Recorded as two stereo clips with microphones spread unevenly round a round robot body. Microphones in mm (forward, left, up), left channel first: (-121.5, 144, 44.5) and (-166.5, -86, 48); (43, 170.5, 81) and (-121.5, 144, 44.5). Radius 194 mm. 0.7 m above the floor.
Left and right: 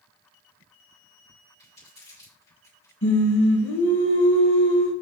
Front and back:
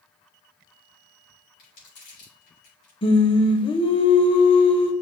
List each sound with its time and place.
1.6 s crumpling: 10° left, 3 m
3.0 s singing: 45° left, 0.6 m